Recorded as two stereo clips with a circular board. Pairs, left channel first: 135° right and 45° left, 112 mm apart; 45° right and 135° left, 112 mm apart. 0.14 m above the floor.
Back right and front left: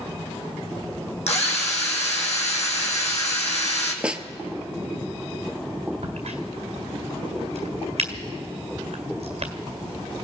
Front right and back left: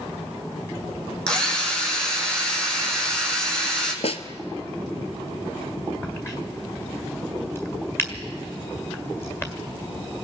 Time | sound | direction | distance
1.3 | a drill | 125° right | 3 m
4.0 | a snare drum | 35° right | 0.7 m
6.0 | a crack | 25° left | 1.7 m